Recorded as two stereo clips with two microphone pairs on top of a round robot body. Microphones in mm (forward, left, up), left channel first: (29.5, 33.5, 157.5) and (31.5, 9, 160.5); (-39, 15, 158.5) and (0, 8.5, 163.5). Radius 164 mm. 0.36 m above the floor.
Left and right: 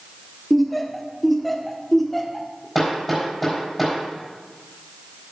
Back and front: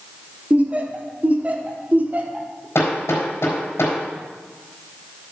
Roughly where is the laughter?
Ahead left.